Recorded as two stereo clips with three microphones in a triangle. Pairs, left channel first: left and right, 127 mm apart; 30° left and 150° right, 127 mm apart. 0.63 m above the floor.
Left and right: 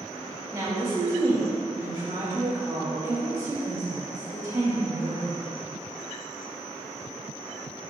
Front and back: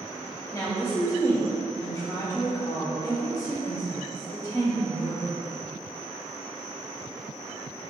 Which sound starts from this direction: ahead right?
A woman speaking, at 0.5 s.